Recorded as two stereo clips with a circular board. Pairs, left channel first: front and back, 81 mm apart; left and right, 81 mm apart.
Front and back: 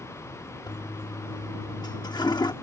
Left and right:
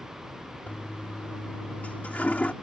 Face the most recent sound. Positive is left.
turn(degrees=20)